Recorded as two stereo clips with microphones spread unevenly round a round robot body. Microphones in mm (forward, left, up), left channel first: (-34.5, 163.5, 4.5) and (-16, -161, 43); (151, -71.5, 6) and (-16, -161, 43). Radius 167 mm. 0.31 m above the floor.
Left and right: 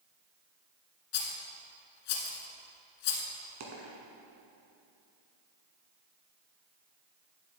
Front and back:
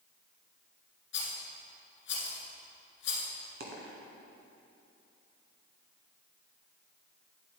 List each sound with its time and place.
1.1 s a rattle: 75° left, 1.4 m
3.6 s a dropped coin: 135° right, 1.8 m